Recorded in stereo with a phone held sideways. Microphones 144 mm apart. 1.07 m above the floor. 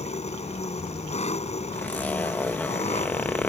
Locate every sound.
0.0 s an engine running: 50° left (ahead or behind)
1.7 s a zipper: 10° left (ahead or behind)